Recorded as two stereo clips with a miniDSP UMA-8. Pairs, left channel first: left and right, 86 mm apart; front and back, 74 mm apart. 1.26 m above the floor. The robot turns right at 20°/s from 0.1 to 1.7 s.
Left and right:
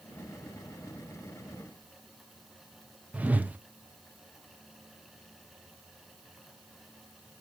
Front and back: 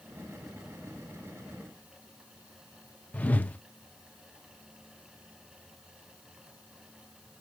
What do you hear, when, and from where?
3.1 s a whoosh: 40° right, 0.6 m